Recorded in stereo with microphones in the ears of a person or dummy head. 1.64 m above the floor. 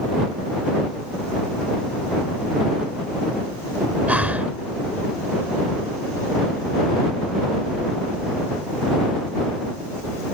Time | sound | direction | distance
4.1 | breathing | 10° right (ahead or behind) | ?